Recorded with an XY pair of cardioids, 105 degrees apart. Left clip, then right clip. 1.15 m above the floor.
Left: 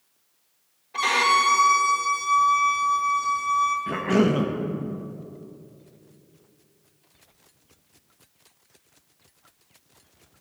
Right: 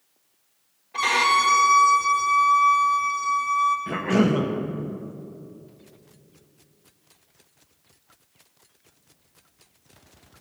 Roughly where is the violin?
Ahead.